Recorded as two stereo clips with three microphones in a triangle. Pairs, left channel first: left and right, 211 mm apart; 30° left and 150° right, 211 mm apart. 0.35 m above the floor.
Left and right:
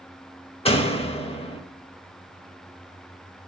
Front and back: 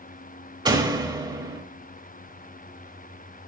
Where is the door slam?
145° left, 0.8 m.